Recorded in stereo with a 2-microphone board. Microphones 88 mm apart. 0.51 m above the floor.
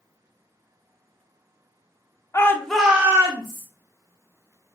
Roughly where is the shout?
Left.